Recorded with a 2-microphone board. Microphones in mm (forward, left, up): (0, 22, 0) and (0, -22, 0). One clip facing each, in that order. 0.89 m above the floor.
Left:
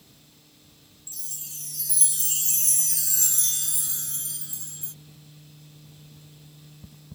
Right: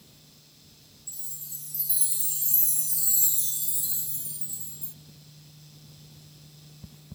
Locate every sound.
1.1 s a chime: 70° left (ahead or behind)